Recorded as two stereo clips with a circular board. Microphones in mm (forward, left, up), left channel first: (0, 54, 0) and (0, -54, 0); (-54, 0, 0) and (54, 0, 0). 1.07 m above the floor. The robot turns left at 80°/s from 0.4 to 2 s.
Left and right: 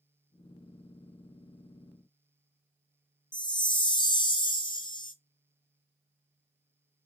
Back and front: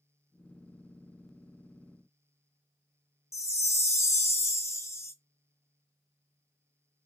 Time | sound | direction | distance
3.3 | a chime | 120° left | 0.5 m